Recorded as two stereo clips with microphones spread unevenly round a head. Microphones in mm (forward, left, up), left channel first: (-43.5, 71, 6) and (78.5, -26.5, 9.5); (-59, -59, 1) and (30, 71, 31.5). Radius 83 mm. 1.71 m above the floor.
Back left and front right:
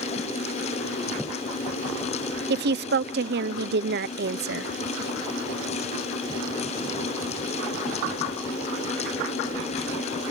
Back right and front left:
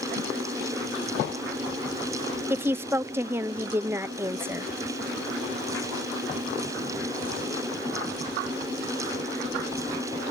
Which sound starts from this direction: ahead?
A woman speaking, at 2.5 s.